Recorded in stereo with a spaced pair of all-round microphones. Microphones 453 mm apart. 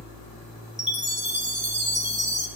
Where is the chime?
25° left (ahead or behind), 1.4 m.